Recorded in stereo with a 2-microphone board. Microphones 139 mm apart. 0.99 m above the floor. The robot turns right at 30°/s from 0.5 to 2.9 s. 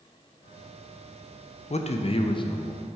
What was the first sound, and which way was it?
A man speaking, 115° left.